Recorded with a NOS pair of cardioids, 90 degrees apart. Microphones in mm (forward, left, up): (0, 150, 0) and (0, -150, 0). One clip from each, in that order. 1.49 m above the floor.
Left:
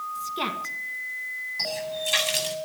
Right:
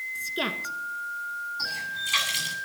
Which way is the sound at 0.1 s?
5° right.